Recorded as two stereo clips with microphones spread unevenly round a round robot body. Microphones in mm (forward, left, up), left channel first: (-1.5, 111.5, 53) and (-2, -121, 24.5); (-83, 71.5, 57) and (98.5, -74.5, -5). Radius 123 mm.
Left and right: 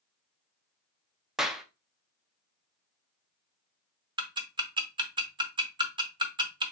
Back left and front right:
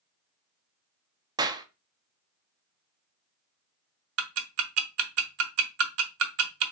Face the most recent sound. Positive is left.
turn(degrees=-20)